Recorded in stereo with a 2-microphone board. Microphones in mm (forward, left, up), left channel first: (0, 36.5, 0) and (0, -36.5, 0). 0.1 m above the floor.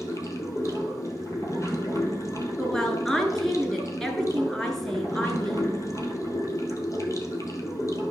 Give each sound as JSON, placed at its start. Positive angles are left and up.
{"t": 0.0, "sound": "running water", "side_deg": 40, "distance_m": 1.2}
{"t": 2.6, "sound": "a woman speaking", "side_deg": 5, "distance_m": 1.3}